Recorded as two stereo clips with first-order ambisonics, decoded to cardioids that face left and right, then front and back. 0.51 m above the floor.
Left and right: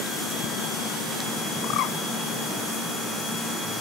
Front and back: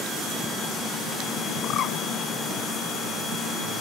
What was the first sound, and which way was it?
A bird, 55° left.